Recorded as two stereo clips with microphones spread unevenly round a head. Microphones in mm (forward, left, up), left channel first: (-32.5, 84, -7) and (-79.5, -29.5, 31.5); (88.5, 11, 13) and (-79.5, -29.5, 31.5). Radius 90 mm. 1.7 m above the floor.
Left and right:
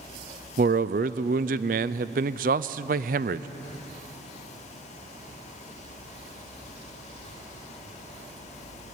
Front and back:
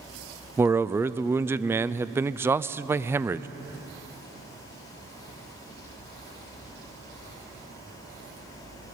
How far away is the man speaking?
About 0.5 m.